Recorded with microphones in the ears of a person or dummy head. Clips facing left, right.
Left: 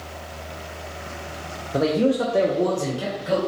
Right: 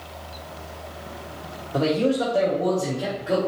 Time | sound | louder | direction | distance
1.7 | a man speaking | left 1 dB | 15° left (ahead or behind) | 0.7 m